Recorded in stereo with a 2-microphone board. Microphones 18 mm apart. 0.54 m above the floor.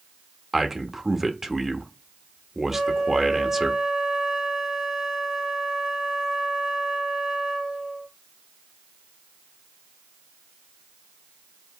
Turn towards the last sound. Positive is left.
turn(degrees=-35)  # may be behind; listen again after turning